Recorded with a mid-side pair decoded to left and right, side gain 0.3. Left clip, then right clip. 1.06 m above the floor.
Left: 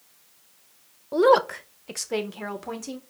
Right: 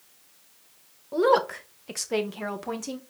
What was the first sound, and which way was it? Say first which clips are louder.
A woman speaking: left 3 dB; 50° left.